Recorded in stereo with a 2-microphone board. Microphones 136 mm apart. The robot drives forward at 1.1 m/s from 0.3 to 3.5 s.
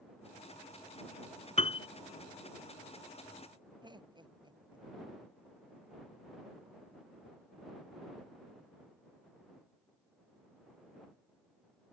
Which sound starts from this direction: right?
Laughter, at 3.8 s.